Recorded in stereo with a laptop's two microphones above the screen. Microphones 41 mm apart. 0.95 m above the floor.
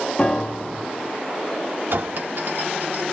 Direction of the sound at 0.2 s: 25° left (ahead or behind).